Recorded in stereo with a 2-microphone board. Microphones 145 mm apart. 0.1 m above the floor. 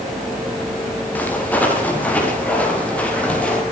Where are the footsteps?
10° left (ahead or behind), 8 m.